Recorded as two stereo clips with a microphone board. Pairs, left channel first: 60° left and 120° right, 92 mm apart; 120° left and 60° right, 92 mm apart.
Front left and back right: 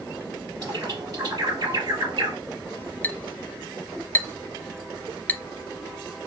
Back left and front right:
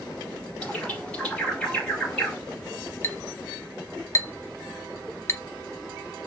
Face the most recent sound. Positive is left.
turn(degrees=110)